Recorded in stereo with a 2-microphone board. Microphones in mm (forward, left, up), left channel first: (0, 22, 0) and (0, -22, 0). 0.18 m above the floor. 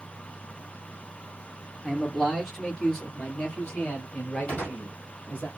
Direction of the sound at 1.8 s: Centre (ahead or behind).